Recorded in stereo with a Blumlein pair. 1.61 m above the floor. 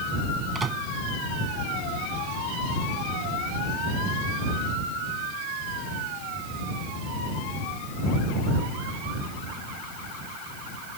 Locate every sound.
0.6 s a microwave: 20° right